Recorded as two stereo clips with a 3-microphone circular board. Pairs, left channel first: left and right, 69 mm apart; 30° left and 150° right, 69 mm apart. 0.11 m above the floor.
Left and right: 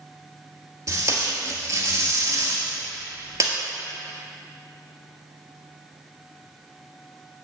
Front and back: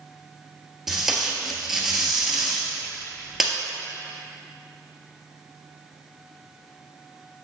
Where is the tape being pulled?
65° right, 1.2 m.